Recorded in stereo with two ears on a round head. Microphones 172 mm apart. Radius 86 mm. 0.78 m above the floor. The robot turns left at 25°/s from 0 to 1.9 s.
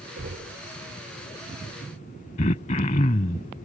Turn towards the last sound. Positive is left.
turn(degrees=35)  # may be behind; listen again after turning